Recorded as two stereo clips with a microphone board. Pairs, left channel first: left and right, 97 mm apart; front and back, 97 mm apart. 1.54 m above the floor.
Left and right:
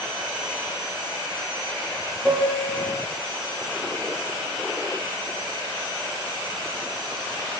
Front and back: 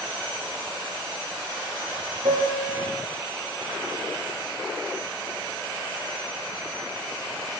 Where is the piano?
175° left, 6 m.